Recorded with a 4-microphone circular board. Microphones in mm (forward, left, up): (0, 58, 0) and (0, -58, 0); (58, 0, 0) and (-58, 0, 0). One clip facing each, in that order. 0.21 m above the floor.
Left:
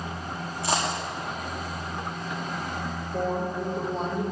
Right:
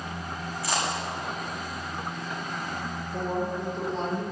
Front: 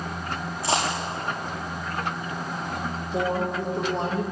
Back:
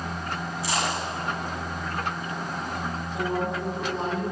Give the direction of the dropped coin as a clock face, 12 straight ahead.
11 o'clock.